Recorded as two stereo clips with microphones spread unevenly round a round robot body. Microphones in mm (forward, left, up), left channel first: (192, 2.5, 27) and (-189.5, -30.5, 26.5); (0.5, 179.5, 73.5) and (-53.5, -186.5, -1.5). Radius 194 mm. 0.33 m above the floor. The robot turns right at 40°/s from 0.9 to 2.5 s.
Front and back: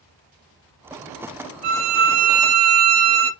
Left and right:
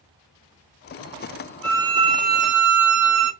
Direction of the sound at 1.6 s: 170° left.